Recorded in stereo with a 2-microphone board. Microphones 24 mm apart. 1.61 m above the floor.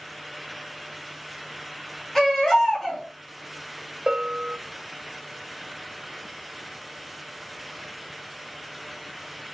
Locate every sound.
2.1 s a baby crying: 5° left (ahead or behind), 3 m
4.1 s a bell: 35° right (ahead or behind), 0.7 m